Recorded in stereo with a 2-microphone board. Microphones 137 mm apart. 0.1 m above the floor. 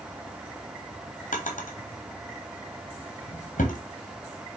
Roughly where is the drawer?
Left.